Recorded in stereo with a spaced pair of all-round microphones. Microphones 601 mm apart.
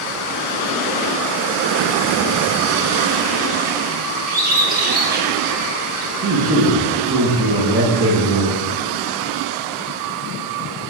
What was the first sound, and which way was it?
A bird, 15° right (ahead or behind).